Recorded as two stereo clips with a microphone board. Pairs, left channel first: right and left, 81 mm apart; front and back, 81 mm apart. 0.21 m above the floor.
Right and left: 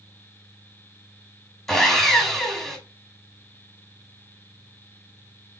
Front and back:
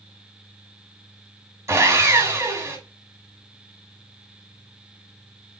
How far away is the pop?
I don't hear a pop.